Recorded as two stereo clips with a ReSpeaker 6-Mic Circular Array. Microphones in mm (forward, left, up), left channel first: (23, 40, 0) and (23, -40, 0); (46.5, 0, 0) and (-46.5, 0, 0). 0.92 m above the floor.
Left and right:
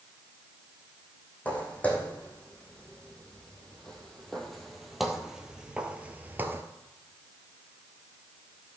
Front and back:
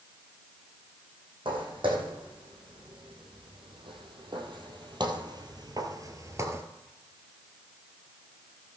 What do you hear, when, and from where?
1.4 s footsteps: 160° left, 3 m; by 6.6 s 135° right, 1.1 m